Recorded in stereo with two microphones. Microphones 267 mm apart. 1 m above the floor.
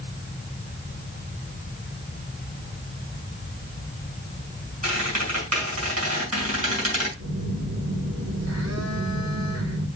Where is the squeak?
65° right (ahead or behind), 4.5 m.